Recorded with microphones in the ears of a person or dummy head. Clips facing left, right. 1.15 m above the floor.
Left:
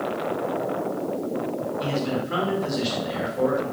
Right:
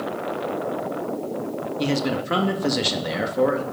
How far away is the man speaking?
About 1.8 m.